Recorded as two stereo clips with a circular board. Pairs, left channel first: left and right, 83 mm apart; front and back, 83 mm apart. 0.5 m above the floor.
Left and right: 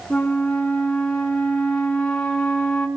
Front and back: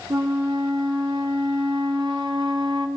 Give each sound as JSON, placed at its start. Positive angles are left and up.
{"t": 0.1, "sound": "a flute", "azimuth_deg": 175, "distance_m": 4.5}